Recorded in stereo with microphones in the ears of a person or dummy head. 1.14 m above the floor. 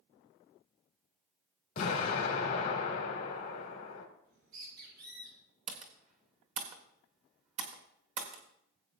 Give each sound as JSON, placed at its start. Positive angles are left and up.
{"t": 1.8, "sound": "an explosion", "side_deg": 45, "distance_m": 2.5}
{"t": 4.2, "sound": "a bird", "side_deg": -85, "distance_m": 7.0}
{"t": 5.7, "sound": "typing on a keyboard", "side_deg": -45, "distance_m": 1.5}